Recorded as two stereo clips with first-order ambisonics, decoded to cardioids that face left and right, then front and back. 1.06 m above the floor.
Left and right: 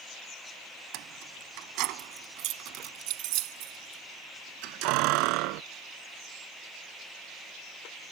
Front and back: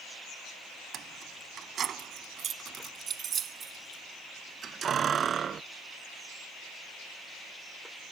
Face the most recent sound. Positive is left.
turn(degrees=-115)